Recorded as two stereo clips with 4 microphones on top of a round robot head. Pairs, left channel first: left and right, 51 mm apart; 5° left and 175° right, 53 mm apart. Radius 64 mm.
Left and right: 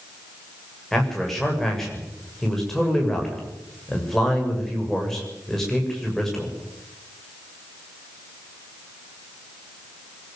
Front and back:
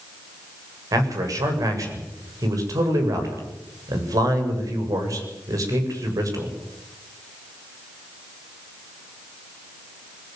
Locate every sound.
0.9 s a man speaking: 175° left, 7.5 m